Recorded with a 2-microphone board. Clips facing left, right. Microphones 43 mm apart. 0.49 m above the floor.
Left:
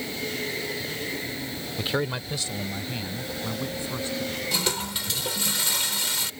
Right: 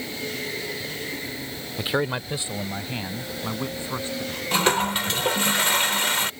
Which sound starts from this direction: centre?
A man speaking, at 1.8 s.